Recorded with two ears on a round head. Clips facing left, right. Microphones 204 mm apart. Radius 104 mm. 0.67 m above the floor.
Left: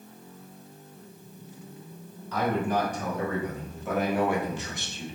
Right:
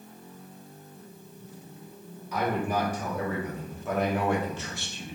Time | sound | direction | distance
2.3 | a man speaking | 10° right (ahead or behind) | 2.5 m